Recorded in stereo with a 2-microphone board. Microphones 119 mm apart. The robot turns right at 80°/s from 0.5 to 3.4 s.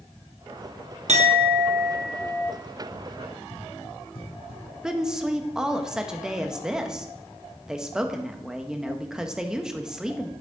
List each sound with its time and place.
1.1 s a clink: 85° right, 0.7 m; by 2.5 s 30° left, 0.7 m
2.6 s running footsteps: 15° left (ahead or behind), 3 m; by 4.7 s 45° left (ahead or behind), 3.5 m
4.8 s a woman speaking: 5° right (ahead or behind), 0.8 m